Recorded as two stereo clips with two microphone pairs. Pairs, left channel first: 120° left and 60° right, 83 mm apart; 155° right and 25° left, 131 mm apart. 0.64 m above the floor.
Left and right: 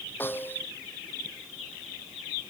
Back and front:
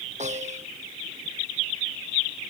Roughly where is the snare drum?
Ahead left.